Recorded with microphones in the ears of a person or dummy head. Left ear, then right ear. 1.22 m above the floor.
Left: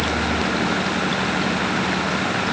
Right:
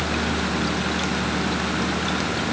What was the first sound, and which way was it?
Only background noise.